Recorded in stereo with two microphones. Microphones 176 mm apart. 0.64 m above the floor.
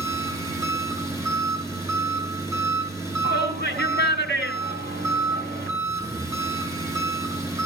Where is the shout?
75° right (ahead or behind), 6 m.